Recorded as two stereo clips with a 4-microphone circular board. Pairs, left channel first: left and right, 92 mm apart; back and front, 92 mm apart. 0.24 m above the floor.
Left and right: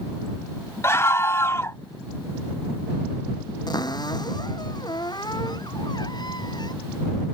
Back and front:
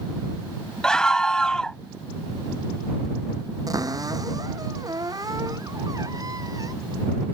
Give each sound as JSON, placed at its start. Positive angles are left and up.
{"t": 0.8, "sound": "a scream", "azimuth_deg": 105}
{"t": 3.7, "sound": "a cupboard door", "azimuth_deg": 50}